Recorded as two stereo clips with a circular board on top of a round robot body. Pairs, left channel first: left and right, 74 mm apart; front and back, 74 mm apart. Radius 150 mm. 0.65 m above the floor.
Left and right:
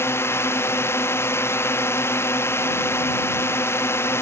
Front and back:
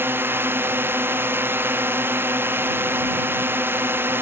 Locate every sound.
0.0 s a drone: 130° left